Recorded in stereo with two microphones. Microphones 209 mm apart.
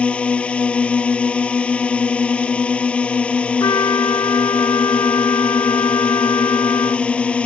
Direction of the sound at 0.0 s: 5° left (ahead or behind).